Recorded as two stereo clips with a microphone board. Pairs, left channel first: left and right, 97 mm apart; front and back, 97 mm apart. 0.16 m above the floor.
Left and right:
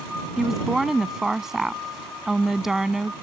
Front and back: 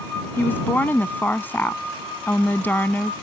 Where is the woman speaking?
15° right.